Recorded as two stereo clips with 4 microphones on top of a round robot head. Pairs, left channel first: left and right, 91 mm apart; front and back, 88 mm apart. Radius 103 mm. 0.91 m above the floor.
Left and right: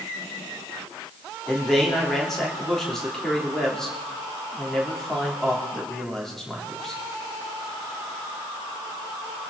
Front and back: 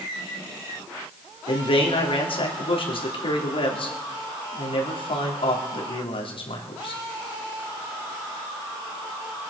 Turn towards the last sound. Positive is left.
turn(degrees=5)